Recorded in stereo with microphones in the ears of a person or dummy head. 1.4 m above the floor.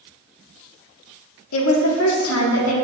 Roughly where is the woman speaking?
Left.